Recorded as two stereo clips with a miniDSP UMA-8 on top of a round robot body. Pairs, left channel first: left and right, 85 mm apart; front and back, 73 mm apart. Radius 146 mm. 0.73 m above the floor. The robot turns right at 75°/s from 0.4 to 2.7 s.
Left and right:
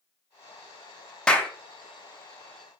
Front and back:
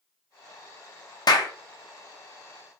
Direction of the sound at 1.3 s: 10° left.